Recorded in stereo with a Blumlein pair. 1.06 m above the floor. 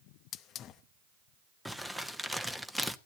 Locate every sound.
0.3 s a hiss: 30° left, 0.7 m
1.6 s crumpling: straight ahead, 0.9 m